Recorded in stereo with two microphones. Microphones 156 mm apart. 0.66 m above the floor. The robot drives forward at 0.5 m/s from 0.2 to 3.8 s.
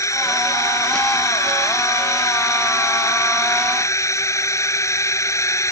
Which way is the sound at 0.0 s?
20° left (ahead or behind).